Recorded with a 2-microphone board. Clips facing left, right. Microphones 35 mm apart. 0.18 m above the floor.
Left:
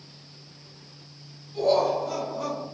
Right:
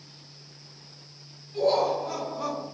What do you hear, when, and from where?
1.5 s laughter: 15° right (ahead or behind), 1.9 m